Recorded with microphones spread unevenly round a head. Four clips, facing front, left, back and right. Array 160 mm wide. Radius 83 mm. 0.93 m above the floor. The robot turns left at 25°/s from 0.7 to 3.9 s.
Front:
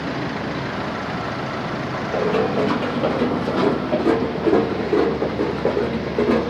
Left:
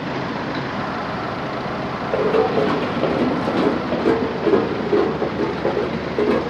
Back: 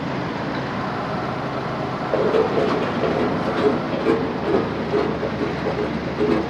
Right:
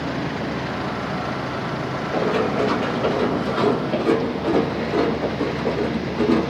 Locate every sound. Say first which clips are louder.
2.1 s running footsteps: left 4 dB, back 2 dB; 145° left, 3 m; by 6.5 s 60° left, 3.5 m